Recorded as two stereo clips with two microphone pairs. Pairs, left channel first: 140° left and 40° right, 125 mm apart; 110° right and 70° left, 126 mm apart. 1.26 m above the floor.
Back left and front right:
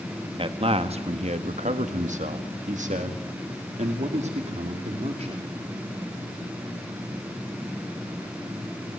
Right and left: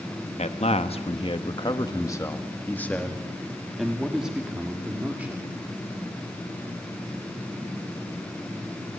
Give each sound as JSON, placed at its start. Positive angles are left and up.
{"t": 0.4, "sound": "a man speaking", "azimuth_deg": -80, "distance_m": 1.4}